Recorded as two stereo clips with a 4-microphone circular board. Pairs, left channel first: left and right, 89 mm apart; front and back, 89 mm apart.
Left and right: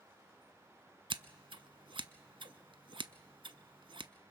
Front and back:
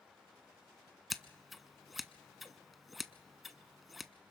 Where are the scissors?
90° right, 0.7 m.